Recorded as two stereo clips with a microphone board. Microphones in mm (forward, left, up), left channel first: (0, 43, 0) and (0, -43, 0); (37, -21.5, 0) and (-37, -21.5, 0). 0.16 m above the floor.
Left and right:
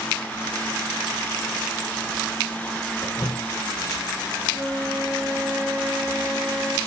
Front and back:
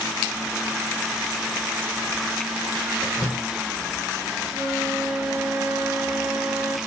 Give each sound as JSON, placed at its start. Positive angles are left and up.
{"t": 3.0, "sound": "dripping", "azimuth_deg": 60, "distance_m": 4.5}
{"t": 4.5, "sound": "a flute", "azimuth_deg": -160, "distance_m": 2.5}